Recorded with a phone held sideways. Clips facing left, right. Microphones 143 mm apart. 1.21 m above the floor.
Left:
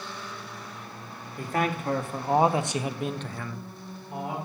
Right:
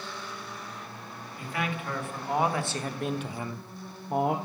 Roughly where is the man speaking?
Left.